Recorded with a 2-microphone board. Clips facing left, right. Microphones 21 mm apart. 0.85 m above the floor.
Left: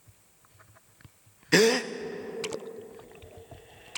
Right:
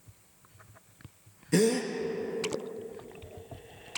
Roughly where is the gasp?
Left.